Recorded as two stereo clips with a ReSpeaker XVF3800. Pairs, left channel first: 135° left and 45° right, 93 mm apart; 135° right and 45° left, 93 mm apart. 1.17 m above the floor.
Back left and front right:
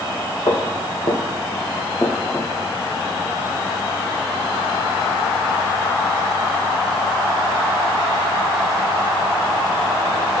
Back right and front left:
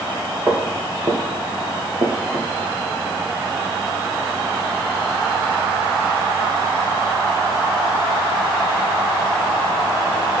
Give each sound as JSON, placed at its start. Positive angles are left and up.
{"t": 0.5, "sound": "footsteps", "azimuth_deg": 125, "distance_m": 2.5}